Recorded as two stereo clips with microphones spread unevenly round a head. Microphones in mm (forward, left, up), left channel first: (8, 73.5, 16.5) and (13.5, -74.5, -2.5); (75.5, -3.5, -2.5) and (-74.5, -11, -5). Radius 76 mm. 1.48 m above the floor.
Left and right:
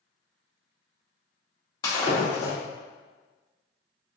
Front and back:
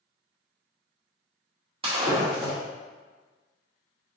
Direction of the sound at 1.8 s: 145° left.